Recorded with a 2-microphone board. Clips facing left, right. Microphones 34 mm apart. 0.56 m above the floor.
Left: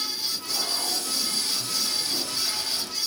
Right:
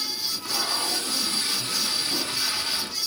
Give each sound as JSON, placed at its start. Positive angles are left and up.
{"t": 0.2, "sound": "tape being pulled", "side_deg": -50, "distance_m": 4.0}